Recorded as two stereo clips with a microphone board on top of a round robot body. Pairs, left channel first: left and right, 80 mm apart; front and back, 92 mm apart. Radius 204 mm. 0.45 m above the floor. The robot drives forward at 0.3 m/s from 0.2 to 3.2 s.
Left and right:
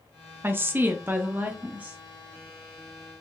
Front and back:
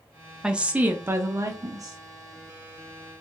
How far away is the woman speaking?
About 0.7 m.